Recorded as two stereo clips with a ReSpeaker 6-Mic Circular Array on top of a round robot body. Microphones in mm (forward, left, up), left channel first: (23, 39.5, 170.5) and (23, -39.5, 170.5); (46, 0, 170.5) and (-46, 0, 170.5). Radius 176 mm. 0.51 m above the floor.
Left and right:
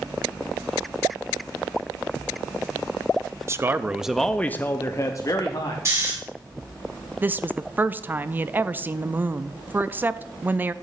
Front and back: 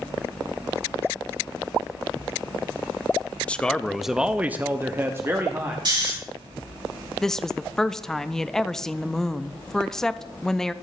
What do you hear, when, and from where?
3.5 s a man speaking: 70° right, 0.7 m; by 5.8 s 120° left, 1.1 m
5.8 s snoring: 145° right, 5.5 m
7.2 s a woman speaking: 80° right, 0.6 m